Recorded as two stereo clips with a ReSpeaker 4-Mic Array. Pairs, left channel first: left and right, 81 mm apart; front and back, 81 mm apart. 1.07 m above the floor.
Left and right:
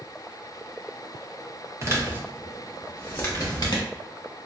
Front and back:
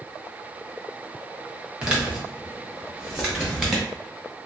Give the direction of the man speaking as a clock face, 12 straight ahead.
4 o'clock.